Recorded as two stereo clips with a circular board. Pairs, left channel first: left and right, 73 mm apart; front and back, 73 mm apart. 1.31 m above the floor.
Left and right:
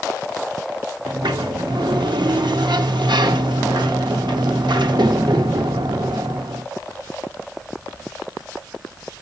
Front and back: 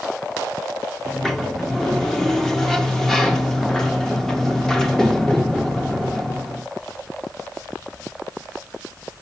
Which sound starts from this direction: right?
A sliding door, at 1.1 s.